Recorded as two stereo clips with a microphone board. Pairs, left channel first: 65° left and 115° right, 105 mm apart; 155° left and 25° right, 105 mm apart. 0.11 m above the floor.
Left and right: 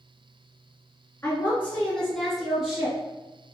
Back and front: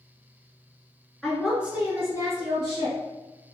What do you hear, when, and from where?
1.2 s a woman speaking: 70° left, 1.7 m; by 3.0 s 35° right, 2.5 m